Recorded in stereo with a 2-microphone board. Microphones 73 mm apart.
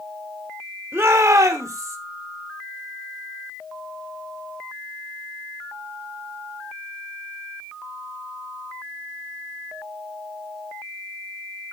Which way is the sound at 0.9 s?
35° right (ahead or behind).